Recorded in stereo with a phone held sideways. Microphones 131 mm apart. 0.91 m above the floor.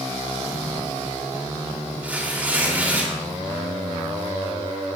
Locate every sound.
2.0 s tearing paper: 10° right (ahead or behind), 2.5 m